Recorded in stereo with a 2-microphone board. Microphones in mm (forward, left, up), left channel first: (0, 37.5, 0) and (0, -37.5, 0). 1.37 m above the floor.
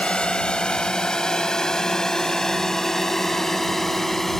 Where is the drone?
15° left (ahead or behind); by 4.4 s 5° left (ahead or behind).